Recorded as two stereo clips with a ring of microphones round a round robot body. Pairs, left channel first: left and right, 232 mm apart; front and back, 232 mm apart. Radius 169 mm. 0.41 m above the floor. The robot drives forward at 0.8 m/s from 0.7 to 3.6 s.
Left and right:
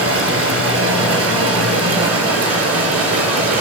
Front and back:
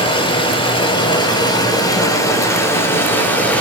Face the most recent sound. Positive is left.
turn(degrees=-85)